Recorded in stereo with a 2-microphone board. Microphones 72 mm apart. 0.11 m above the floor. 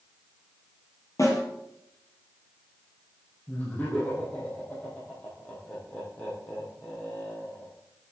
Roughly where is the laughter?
Left.